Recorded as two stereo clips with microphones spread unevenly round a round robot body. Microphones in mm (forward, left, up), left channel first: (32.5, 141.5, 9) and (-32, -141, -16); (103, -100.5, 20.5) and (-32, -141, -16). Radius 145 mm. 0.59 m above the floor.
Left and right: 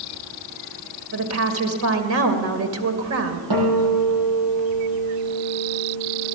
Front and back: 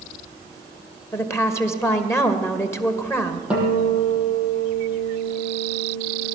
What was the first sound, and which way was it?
A woman speaking, 60° right.